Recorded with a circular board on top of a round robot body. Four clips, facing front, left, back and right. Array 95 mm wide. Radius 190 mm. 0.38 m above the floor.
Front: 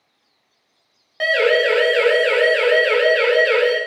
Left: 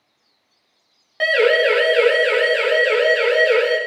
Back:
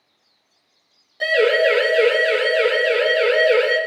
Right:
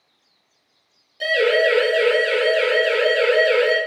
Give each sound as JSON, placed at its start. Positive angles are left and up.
{"t": 1.2, "sound": "a siren", "azimuth_deg": 55, "distance_m": 4.5}